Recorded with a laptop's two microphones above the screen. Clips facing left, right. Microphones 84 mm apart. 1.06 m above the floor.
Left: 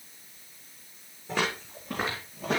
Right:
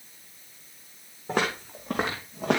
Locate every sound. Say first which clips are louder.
1.3 s footsteps: right 3 dB; 55° right (ahead or behind), 3.5 m; by 2.6 s 70° right (ahead or behind), 2.5 m